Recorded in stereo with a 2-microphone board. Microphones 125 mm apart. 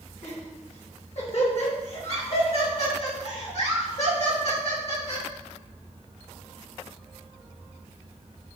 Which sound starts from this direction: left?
Laughter, at 0.2 s.